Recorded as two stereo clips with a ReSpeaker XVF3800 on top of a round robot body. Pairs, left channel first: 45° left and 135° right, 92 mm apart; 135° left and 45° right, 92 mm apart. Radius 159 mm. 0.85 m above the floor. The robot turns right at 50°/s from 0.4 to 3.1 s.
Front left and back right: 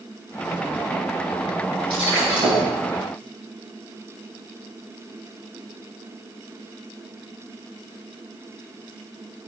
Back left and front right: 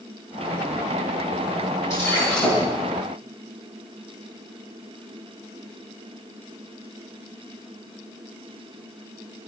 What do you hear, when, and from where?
1.9 s breaking glass: 165° right, 8.5 m; by 2.6 s 130° right, 8.5 m